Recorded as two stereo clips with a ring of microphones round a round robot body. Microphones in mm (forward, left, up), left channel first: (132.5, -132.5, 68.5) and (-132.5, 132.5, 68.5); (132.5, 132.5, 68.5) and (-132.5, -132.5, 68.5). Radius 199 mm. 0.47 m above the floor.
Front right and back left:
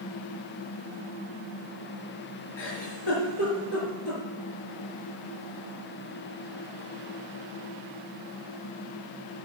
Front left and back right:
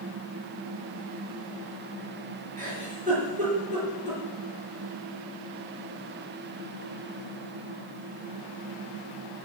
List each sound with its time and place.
2.6 s a giggle: 65° right, 6 m